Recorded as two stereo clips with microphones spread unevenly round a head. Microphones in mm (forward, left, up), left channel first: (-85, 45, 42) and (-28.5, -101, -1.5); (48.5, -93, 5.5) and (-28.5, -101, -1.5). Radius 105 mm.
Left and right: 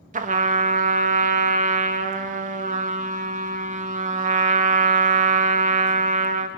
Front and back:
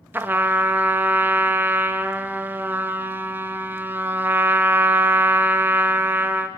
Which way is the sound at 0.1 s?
110° right.